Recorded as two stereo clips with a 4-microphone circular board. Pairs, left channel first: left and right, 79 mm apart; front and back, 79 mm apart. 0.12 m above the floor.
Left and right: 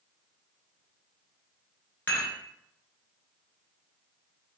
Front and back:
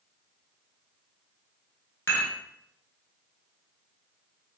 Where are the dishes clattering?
35° left, 0.9 m.